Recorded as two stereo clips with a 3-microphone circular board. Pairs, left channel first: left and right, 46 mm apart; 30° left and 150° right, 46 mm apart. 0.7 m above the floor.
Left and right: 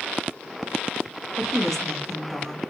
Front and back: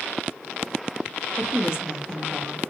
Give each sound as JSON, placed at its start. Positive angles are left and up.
{"t": 1.4, "sound": "a woman speaking", "azimuth_deg": 160, "distance_m": 0.9}